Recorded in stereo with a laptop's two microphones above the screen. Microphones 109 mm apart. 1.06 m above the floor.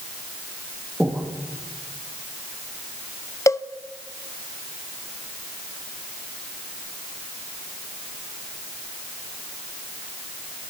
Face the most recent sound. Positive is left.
turn(degrees=25)  # may be behind; listen again after turning